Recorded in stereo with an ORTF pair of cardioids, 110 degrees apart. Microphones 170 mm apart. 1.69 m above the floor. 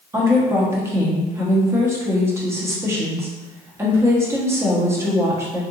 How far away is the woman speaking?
About 1.0 m.